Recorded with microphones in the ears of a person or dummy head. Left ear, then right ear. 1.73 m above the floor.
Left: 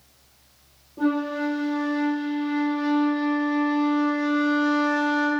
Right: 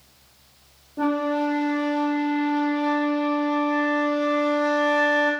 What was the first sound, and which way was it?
A flute, 25° right (ahead or behind).